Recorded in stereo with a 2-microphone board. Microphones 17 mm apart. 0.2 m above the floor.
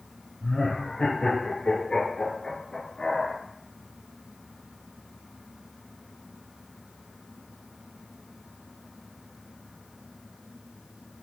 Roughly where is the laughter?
Left.